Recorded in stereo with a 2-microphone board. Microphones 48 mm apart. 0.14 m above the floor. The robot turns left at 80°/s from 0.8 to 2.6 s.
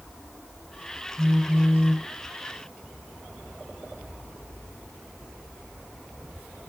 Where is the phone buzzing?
145° right, 1.3 m; by 2.1 s 140° left, 1.3 m.